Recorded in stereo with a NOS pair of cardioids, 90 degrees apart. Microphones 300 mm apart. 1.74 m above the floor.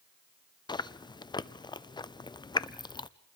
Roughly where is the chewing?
Ahead.